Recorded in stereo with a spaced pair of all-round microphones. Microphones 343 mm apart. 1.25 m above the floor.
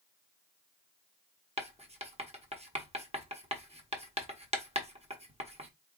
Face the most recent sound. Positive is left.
turn(degrees=-20)  # may be behind; listen again after turning